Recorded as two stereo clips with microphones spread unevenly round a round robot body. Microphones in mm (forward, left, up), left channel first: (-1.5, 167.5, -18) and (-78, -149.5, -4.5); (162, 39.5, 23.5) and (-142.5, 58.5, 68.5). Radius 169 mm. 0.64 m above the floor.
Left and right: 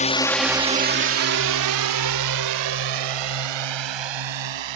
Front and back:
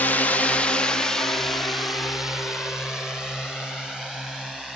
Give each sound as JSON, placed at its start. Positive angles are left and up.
{"t": 0.0, "sound": "a drone", "azimuth_deg": 50}